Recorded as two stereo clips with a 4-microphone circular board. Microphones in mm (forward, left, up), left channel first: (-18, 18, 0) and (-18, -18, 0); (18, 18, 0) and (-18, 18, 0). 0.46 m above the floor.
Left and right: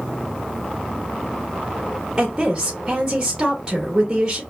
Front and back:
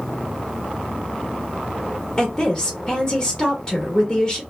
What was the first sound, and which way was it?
A woman speaking, 40° right.